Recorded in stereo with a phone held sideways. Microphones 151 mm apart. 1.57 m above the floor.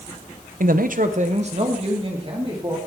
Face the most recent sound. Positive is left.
turn(degrees=-35)  # may be behind; listen again after turning